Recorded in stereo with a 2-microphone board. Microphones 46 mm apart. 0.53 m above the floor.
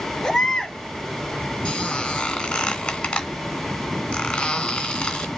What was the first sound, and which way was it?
A baby crying, 5° left (ahead or behind).